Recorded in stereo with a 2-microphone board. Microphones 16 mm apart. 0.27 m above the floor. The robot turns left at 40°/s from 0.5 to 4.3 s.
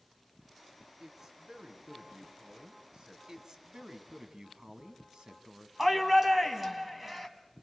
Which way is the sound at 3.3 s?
50° right.